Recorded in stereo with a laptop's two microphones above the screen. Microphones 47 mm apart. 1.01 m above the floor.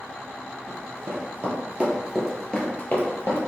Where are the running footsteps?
60° right (ahead or behind), 1.8 m; by 3.4 s 50° left (ahead or behind), 1.4 m.